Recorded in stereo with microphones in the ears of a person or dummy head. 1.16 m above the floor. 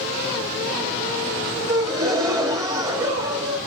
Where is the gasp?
20° right (ahead or behind), 2 m.